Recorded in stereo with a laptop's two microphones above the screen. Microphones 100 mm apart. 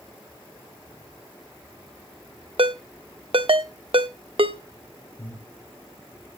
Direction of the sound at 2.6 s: 65° right (ahead or behind).